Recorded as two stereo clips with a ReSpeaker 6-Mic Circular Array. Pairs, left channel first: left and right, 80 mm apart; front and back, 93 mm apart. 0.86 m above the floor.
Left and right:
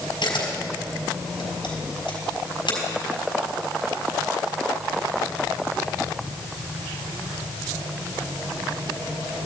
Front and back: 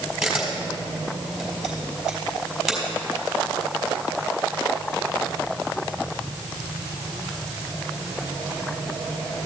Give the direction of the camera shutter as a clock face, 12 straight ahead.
9 o'clock.